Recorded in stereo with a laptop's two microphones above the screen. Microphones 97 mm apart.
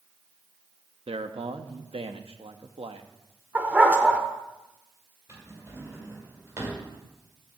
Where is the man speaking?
80° right, 1.0 m.